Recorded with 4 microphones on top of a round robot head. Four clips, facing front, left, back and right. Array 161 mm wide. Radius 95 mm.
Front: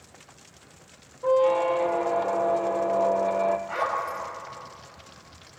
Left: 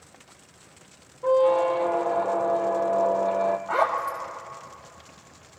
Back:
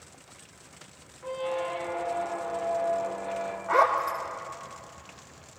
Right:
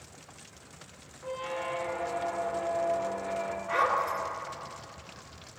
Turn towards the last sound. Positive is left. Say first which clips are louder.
# left 3 dB, back 5 dB
turn(degrees=145)